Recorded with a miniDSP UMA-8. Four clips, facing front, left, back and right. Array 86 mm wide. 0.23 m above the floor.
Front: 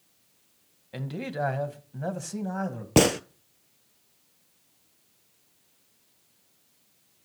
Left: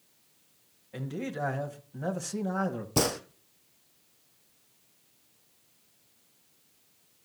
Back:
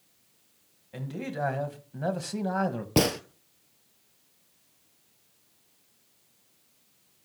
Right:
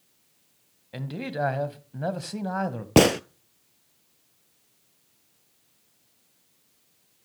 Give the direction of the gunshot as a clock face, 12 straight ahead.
3 o'clock.